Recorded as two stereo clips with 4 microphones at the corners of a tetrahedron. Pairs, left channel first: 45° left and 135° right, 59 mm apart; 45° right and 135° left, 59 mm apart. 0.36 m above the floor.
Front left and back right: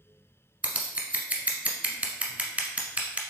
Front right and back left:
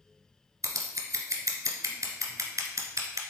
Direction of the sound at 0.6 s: 155° left.